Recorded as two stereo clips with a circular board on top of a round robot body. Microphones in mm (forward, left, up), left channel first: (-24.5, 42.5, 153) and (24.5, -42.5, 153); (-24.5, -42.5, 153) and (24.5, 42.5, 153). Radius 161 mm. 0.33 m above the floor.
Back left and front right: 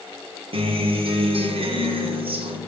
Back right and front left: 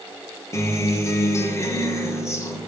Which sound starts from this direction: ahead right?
A guitar, at 0.5 s.